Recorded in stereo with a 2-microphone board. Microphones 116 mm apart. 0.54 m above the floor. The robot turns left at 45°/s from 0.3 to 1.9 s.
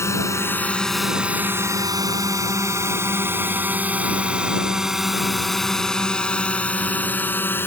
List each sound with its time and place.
0.0 s a drone: 25° left (ahead or behind); by 7.7 s 20° left (ahead or behind)